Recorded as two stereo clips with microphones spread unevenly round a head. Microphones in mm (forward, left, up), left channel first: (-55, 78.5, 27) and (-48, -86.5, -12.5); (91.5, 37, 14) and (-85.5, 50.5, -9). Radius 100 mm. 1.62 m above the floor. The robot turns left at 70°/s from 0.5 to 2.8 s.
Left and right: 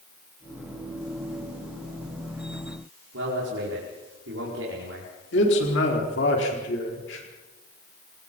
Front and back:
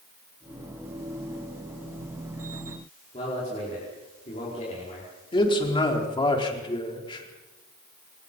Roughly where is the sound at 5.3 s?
Ahead left.